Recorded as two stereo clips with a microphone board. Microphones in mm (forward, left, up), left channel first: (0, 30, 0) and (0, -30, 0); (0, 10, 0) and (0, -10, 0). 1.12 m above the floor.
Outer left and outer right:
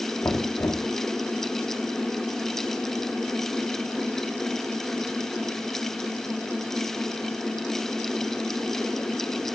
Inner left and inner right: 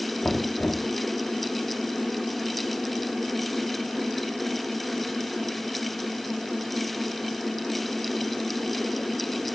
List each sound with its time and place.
0.2 s knocking: 55° left (ahead or behind), 2.5 m